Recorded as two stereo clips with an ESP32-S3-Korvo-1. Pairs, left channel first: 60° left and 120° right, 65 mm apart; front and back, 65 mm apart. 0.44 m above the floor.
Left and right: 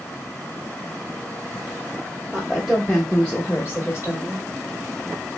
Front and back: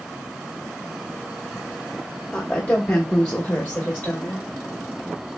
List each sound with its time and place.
2.3 s a woman speaking: 60° right, 1.3 m; by 4.4 s 55° left, 1.6 m